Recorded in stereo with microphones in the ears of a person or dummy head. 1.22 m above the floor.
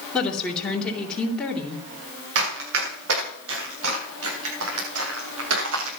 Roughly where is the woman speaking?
Centre.